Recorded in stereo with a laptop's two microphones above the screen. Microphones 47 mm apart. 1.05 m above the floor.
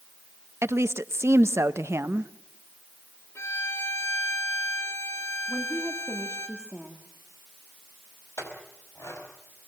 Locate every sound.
0.6 s a woman speaking: 70° right (ahead or behind), 0.9 m
3.4 s a violin: 65° left (ahead or behind), 4 m
5.5 s a woman speaking: 30° right (ahead or behind), 1.6 m
8.4 s a clink: 85° left, 5 m